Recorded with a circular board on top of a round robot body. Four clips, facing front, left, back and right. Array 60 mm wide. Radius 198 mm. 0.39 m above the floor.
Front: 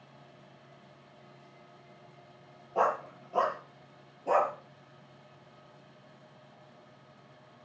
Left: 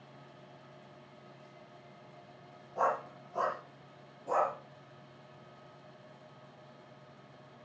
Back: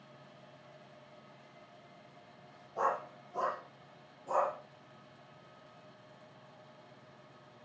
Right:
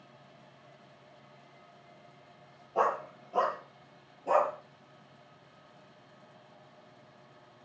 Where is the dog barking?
40° right, 7 m; by 4.5 s 35° right, 5.5 m.